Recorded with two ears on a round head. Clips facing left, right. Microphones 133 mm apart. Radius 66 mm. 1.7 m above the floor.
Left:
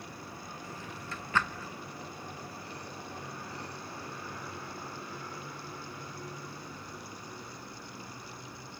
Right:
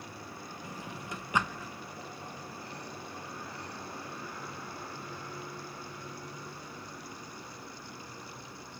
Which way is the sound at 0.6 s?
15° right (ahead or behind).